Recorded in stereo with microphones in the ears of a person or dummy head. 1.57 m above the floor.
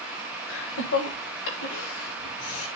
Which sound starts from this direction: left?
Laughter, at 0.5 s.